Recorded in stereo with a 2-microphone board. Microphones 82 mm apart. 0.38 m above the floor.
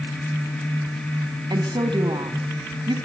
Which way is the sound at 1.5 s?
70° right (ahead or behind).